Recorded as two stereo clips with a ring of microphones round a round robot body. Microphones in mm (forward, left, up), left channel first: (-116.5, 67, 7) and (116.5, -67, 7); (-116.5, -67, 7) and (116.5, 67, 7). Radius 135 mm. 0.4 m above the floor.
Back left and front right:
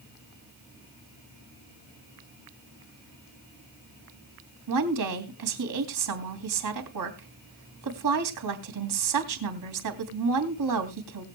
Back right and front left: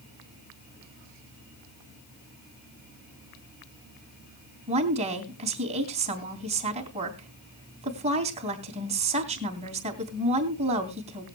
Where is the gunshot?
No gunshot in this recording.